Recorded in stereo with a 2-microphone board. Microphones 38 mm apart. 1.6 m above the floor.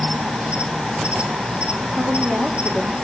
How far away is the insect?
About 2.5 m.